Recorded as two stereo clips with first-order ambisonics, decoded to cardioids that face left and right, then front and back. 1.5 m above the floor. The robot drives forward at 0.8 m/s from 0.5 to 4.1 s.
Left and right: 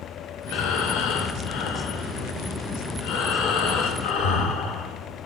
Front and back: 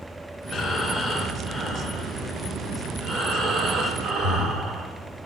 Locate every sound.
0.5 s breathing: 75° left, 2.5 m; by 5.3 s 130° left, 3.5 m